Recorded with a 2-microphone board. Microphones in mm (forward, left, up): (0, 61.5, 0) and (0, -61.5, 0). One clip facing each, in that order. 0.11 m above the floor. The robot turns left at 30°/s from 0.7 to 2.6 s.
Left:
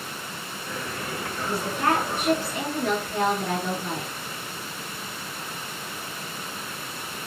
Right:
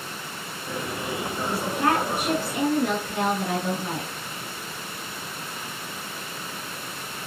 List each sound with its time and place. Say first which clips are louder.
1.4 s a woman speaking: right 1 dB; centre (ahead or behind), 1.2 m; by 4.1 s 15° right (ahead or behind), 1.2 m